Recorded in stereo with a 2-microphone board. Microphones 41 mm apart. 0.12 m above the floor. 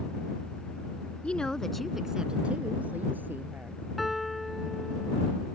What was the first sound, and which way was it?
A woman speaking, 30° left (ahead or behind).